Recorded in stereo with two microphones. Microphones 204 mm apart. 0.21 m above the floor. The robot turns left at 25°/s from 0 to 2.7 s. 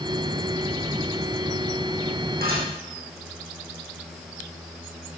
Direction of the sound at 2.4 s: 45° right (ahead or behind).